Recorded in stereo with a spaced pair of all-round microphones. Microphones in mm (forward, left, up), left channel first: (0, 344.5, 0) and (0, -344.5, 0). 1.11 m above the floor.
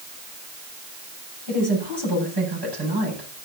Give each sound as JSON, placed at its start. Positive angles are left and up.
{"t": 1.5, "sound": "a woman speaking", "side_deg": -35, "distance_m": 9.0}